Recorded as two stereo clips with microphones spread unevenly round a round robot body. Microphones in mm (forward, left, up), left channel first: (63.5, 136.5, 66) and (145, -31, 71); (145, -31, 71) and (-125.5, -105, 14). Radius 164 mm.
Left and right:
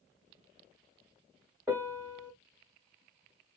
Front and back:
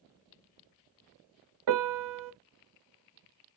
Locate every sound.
1.7 s a piano: 145° right, 1.0 m